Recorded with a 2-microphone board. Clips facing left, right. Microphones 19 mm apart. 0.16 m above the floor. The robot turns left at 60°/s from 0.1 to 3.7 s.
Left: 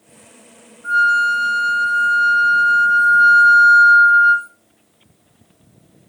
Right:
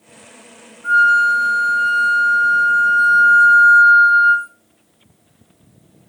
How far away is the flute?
About 3 m.